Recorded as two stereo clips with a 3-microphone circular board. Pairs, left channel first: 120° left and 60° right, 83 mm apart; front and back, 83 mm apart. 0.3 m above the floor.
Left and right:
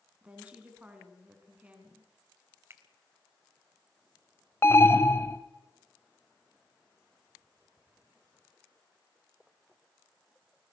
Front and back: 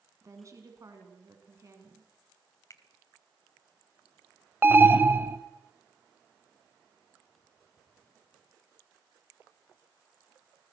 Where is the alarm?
140° left, 1.1 m.